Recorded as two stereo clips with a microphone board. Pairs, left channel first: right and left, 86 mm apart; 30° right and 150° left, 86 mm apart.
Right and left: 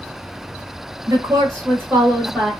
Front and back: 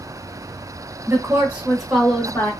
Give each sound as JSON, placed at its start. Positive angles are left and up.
{"t": 1.1, "sound": "a woman speaking", "azimuth_deg": 110, "distance_m": 1.5}